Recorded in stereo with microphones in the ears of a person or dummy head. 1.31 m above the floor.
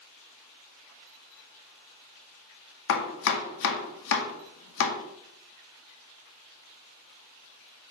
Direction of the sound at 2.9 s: 70° left (ahead or behind).